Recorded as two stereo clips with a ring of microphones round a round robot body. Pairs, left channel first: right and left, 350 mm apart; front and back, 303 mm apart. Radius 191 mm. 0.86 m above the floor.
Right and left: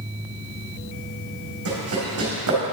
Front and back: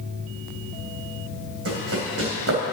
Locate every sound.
1.6 s running footsteps: 140° left, 3 m